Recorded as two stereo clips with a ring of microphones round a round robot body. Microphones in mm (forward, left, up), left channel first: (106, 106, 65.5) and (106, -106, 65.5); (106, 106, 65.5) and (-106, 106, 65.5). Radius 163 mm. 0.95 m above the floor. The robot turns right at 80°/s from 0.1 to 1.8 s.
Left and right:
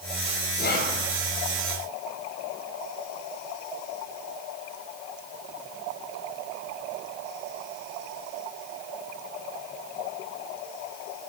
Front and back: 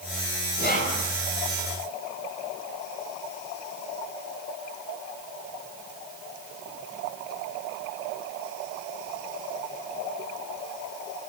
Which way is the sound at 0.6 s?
40° left.